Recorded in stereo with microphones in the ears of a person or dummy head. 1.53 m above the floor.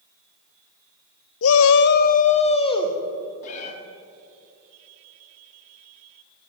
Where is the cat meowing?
45° left (ahead or behind), 1.6 m.